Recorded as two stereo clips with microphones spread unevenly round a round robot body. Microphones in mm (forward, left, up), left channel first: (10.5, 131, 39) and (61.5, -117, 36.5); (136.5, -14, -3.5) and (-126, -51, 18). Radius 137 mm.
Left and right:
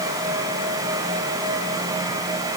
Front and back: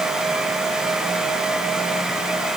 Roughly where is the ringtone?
No ringtone in this recording.